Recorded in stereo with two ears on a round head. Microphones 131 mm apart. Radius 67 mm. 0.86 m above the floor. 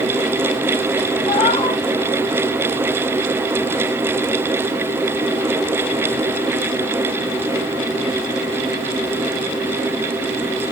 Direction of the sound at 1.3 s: 45° left (ahead or behind).